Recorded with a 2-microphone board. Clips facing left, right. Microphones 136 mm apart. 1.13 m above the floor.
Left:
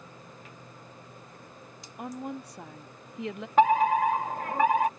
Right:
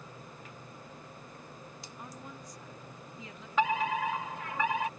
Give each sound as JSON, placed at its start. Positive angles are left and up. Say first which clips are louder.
{"t": 2.0, "sound": "a woman speaking", "louder": "left 12 dB", "side_deg": 70}
{"t": 3.6, "sound": "a fire alarm", "louder": "left 8 dB", "side_deg": 50}